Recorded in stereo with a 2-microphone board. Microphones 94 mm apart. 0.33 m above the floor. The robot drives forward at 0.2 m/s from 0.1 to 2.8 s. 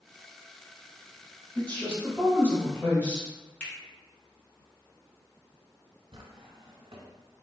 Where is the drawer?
70° right (ahead or behind), 0.8 m.